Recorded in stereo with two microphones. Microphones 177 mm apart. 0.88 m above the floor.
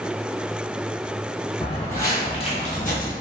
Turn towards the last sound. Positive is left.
turn(degrees=55)  # may be behind; listen again after turning